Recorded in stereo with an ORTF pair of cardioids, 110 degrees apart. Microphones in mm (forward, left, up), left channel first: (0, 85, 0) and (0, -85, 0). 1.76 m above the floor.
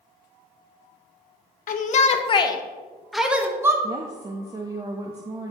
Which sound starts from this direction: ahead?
A woman speaking, at 3.8 s.